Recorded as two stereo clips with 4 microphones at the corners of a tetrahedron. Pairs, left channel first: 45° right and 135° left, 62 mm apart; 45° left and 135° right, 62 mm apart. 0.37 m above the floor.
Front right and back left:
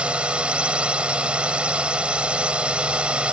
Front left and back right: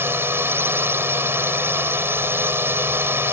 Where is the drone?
160° right.